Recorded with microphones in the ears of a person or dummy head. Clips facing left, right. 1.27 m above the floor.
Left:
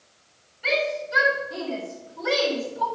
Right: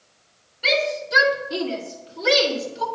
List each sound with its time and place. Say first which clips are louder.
0.6 s a shout: right 2 dB; 55° right (ahead or behind), 3.5 m; by 2.9 s 40° right (ahead or behind), 2.5 m